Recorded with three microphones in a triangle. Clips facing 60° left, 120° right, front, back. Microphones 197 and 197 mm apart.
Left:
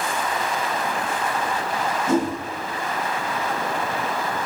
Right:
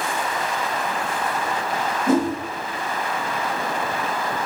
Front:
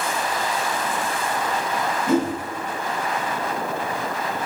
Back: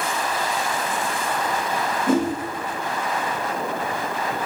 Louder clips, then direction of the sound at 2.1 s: Right 3 dB, even; 145° right.